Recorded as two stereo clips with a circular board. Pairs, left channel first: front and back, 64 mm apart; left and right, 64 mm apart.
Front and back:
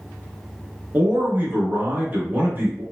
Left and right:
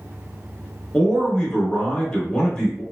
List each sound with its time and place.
0.9 s a man speaking: 150° left, 0.9 m